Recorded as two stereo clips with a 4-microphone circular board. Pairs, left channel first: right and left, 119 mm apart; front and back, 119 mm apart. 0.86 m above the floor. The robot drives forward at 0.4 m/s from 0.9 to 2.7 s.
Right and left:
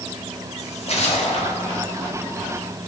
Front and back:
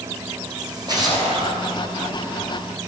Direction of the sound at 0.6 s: 125° right.